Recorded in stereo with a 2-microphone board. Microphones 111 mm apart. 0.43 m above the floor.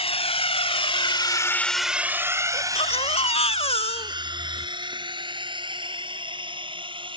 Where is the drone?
55° left (ahead or behind); by 7.2 s 45° right (ahead or behind).